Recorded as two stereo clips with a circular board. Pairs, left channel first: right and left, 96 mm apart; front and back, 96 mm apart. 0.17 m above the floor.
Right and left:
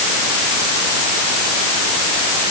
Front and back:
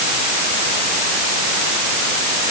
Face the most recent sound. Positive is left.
No sound to turn to.